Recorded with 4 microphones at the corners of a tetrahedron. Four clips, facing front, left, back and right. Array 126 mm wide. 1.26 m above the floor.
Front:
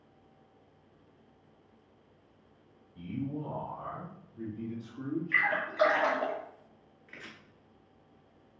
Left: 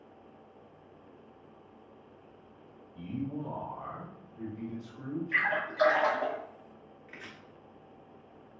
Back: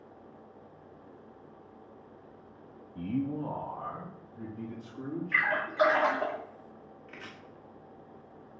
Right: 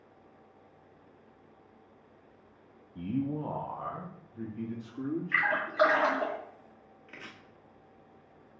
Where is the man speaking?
145° right, 0.5 m; by 5.5 s 85° right, 2.5 m.